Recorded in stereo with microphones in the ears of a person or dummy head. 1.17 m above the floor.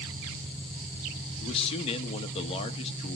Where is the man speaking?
30° left (ahead or behind), 1.3 m.